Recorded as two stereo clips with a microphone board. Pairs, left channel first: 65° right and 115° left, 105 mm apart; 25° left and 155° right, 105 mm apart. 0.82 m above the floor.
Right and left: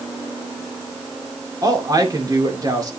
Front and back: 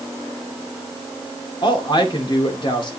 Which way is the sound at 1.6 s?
60° left.